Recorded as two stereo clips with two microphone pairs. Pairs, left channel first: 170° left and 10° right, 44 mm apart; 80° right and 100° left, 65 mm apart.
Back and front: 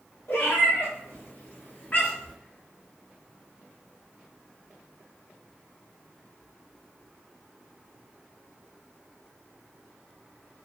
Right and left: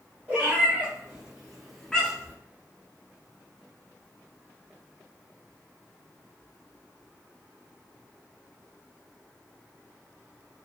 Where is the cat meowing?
165° left, 1.6 m; by 2.4 s 125° right, 0.7 m.